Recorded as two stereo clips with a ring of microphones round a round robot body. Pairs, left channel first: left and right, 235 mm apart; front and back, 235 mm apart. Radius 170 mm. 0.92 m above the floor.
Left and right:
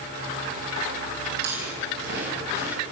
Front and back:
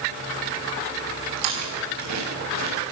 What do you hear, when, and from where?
1.4 s chewing: 150° right, 5 m